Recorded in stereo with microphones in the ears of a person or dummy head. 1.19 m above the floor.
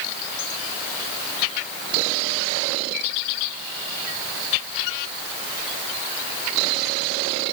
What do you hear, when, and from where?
Only background noise.